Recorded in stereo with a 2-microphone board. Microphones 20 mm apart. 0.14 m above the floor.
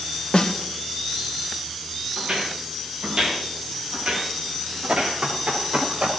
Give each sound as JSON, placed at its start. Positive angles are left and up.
{"t": 0.3, "sound": "a snare drum", "side_deg": 80, "distance_m": 2.0}
{"t": 2.2, "sound": "footsteps", "side_deg": -40, "distance_m": 6.5}
{"t": 4.9, "sound": "running footsteps", "side_deg": -60, "distance_m": 4.5}